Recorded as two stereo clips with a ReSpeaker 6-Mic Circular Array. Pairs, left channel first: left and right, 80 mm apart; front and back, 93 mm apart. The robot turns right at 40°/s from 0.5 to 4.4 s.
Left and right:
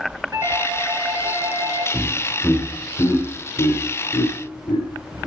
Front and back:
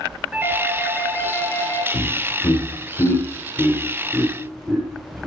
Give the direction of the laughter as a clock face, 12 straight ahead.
12 o'clock.